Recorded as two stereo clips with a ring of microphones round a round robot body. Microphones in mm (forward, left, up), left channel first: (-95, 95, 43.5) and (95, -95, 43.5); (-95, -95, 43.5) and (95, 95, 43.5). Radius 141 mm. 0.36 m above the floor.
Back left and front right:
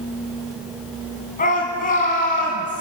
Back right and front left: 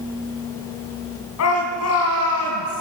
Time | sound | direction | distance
1.4 | a shout | 165° right | 3 m